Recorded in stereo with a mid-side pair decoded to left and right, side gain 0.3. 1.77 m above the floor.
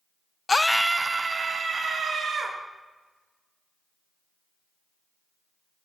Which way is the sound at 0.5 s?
40° left.